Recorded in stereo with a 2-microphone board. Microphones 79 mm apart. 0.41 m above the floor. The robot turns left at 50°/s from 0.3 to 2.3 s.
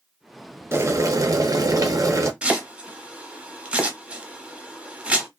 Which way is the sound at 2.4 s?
15° right (ahead or behind).